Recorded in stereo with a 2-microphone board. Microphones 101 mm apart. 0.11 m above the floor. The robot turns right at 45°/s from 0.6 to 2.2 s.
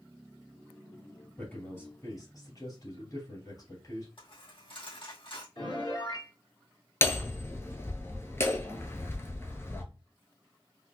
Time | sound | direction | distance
1.4 | a man speaking | 10° left | 3 m
4.2 | a dropped coin | 60° left (ahead or behind) | 2 m
5.5 | a piano | 55° left (ahead or behind) | 3 m
7.0 | hammering | 25° left (ahead or behind) | 0.8 m